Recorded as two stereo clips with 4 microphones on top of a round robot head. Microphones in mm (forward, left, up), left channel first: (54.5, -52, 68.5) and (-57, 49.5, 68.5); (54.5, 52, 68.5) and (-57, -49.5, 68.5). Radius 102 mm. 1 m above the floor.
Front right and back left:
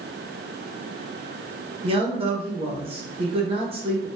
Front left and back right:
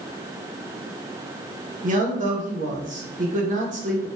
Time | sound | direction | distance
1.8 | a man speaking | 170° right | 1.3 m